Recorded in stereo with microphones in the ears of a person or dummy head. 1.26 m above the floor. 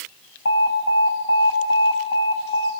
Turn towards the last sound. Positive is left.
turn(degrees=65)  # may be behind; listen again after turning